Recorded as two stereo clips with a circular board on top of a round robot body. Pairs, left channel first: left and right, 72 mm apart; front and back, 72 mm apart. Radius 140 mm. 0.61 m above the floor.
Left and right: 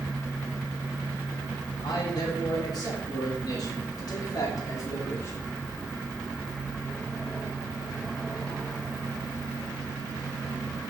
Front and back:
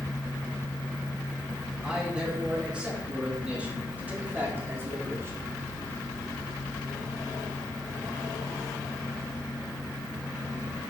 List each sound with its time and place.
1.8 s a man speaking: 105° left, 4 m; by 5.4 s 135° left, 1.6 m